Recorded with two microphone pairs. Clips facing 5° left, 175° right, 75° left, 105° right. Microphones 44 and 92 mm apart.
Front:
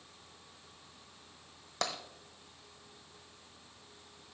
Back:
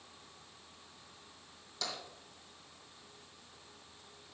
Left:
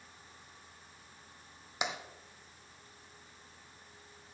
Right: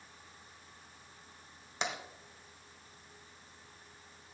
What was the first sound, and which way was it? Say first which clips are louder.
Tapping: front 5 dB, even; straight ahead.